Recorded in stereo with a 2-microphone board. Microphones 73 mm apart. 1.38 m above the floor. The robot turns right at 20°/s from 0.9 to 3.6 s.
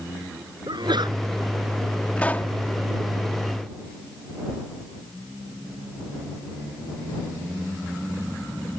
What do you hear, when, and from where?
0.7 s a sneeze: 80° right; by 1.2 s 75° right (ahead or behind)
2.2 s a pop: 20° left (ahead or behind); by 2.6 s 25° left (ahead or behind)